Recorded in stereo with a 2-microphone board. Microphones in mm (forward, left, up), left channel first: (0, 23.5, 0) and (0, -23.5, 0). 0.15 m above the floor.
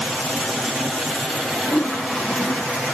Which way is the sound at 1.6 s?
50° left (ahead or behind).